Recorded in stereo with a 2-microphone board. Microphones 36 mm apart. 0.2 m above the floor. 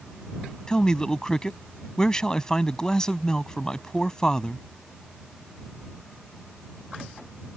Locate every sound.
0.7 s a man speaking: 20° left (ahead or behind)